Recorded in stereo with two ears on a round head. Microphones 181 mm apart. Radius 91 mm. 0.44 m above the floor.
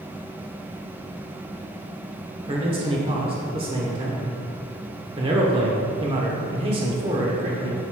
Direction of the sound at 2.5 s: 25° right (ahead or behind).